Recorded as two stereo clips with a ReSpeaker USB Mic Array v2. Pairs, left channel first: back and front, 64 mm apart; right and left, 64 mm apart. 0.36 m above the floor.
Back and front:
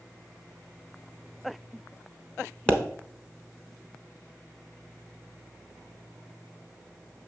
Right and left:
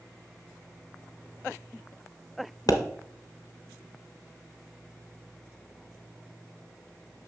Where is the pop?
105° right, 0.9 m.